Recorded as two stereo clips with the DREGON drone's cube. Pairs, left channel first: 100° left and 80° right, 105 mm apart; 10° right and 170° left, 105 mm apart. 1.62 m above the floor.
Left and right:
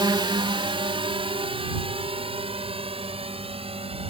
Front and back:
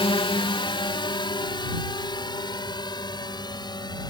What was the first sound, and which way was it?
A drone, 40° right.